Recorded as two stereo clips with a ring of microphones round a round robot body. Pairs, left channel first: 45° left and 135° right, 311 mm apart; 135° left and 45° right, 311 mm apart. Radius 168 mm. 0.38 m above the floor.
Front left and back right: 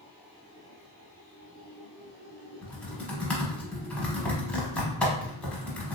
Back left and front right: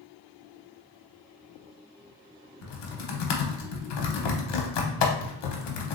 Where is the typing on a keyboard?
130° left, 0.7 m.